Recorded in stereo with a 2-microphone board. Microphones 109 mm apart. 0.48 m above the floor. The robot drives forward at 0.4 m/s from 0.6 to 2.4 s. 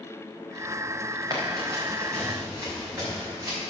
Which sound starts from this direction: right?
Running footsteps, at 1.3 s.